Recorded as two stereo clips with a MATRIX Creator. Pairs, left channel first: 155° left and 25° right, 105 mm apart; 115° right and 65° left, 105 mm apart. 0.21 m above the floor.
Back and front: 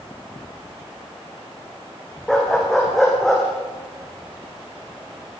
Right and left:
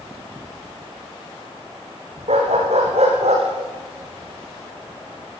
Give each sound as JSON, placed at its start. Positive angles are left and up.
{"t": 2.3, "sound": "a dog barking", "azimuth_deg": 70, "distance_m": 6.0}